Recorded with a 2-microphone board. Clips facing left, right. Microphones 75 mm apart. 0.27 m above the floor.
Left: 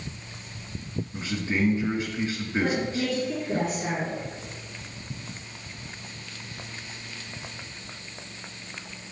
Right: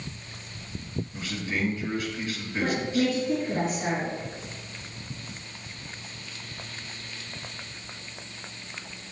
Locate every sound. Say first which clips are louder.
1.1 s a man speaking: left 5 dB; 25° left (ahead or behind), 3 m
2.6 s a woman speaking: right 2 dB; 20° right (ahead or behind), 3 m